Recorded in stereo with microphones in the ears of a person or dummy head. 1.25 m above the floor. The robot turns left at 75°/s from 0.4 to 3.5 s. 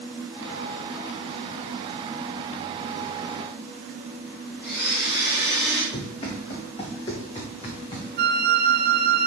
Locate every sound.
4.6 s a blender: 50° left (ahead or behind), 4 m
5.9 s running footsteps: 30° left (ahead or behind), 4.5 m; by 8.1 s 35° left (ahead or behind), 3.5 m
8.2 s a flute: 50° right (ahead or behind), 0.9 m